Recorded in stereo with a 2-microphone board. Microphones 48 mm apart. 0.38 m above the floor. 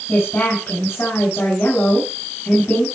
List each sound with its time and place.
0.1 s a woman speaking: 50° left (ahead or behind), 5 m